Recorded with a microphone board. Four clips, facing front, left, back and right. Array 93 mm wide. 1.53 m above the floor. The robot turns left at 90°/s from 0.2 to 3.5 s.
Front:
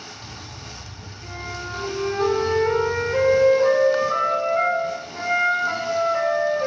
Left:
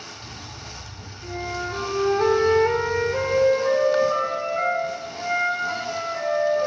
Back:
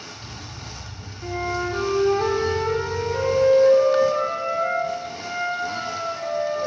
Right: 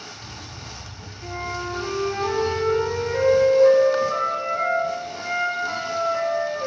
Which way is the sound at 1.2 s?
165° right.